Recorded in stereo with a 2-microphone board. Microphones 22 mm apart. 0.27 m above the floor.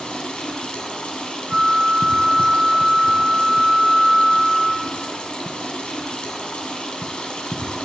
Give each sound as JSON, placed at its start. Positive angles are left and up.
{"t": 0.0, "sound": "running water", "side_deg": 55, "distance_m": 1.5}
{"t": 1.5, "sound": "a flute", "side_deg": -35, "distance_m": 0.5}